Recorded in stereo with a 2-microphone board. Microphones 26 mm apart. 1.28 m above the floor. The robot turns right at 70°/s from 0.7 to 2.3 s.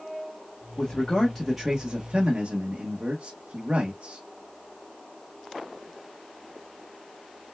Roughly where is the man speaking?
Behind left.